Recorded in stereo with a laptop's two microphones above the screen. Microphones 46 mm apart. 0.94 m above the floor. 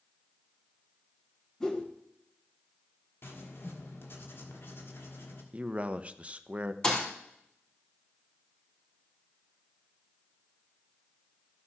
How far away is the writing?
About 1.4 m.